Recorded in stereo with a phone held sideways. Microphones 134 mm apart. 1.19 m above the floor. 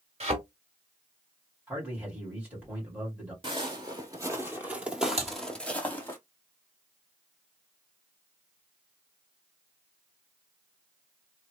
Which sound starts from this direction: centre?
A man speaking, at 1.7 s.